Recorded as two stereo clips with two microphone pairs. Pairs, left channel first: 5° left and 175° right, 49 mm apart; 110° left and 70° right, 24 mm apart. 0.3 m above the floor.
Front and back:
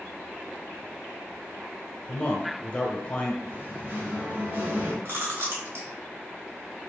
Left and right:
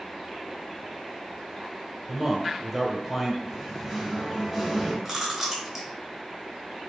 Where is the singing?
150° right, 2 m.